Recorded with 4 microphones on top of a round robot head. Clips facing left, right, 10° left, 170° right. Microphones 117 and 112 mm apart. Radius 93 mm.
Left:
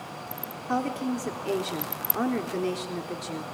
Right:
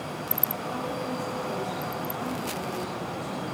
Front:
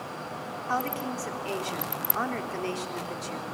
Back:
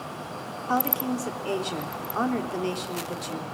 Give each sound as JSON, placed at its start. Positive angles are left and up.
{"t": 0.7, "sound": "a woman speaking", "azimuth_deg": 120, "distance_m": 3.5}